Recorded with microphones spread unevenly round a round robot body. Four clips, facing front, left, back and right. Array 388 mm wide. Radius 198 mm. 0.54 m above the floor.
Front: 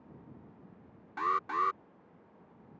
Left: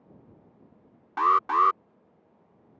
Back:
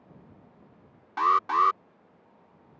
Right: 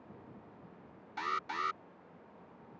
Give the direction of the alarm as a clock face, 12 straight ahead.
9 o'clock.